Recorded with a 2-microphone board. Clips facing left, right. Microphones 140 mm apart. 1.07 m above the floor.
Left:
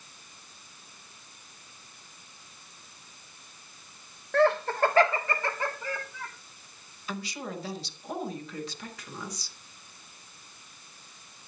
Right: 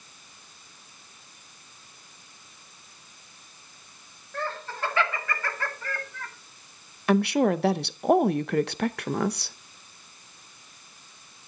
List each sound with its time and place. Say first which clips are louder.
4.3 s laughter: left 11 dB; 80° left, 0.7 m; by 6.3 s 10° left (ahead or behind), 1.9 m
7.1 s a woman speaking: right 16 dB; 65° right (ahead or behind), 0.7 m